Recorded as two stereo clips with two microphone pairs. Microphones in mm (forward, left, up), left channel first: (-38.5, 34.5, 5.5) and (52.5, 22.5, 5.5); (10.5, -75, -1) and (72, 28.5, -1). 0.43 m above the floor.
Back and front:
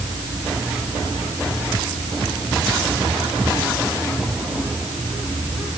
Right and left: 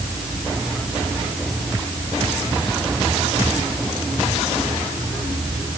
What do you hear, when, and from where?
Only background noise.